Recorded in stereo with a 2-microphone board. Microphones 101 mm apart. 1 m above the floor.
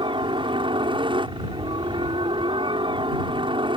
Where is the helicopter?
65° right (ahead or behind).